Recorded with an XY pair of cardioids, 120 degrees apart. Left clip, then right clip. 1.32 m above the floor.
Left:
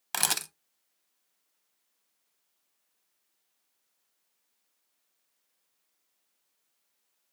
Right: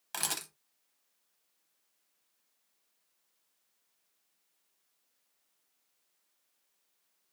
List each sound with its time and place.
0.1 s a camera shutter: 45° left, 0.6 m